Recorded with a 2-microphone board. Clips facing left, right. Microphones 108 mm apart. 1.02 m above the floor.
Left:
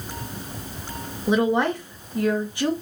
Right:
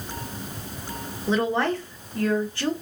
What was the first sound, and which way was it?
A woman speaking, 15° left (ahead or behind).